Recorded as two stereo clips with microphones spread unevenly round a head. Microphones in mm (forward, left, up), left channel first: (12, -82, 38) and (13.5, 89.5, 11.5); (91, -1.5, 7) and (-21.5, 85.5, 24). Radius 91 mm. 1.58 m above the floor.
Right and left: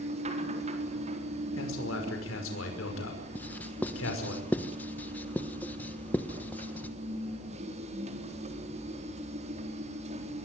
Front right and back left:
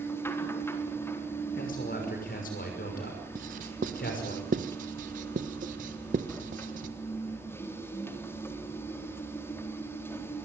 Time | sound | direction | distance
0.0 | a machine running | 35° left | 4 m
1.6 | a man speaking | 85° right | 5.5 m
3.4 | writing | 170° right | 1.2 m